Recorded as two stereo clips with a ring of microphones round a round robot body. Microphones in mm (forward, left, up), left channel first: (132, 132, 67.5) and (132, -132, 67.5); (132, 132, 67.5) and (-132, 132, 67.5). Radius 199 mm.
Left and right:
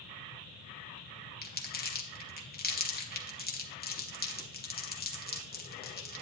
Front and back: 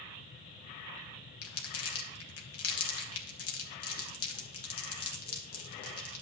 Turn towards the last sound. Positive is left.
turn(degrees=35)